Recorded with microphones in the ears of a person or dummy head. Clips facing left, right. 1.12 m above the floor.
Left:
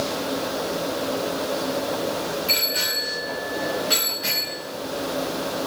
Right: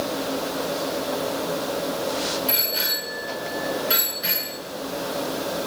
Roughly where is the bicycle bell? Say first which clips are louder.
Even; centre.